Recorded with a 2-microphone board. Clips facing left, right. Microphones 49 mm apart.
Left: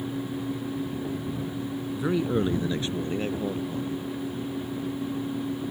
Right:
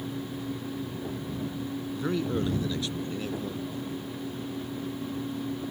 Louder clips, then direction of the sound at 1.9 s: Left 4 dB; 10° left (ahead or behind).